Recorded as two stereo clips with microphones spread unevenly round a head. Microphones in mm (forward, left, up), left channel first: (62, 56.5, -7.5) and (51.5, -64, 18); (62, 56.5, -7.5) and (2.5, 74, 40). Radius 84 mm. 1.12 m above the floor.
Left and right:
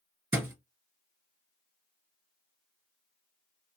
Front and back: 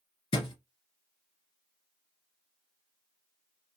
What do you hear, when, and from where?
0.3 s a thud: 35° right, 1.8 m